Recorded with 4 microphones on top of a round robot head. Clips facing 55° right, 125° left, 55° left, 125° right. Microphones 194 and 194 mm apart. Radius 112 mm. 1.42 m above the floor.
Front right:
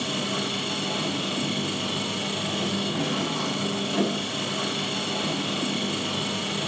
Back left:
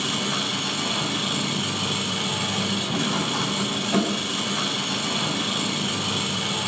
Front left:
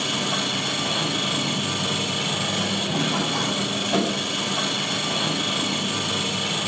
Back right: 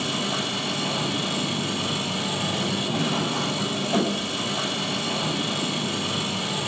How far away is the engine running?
About 9 m.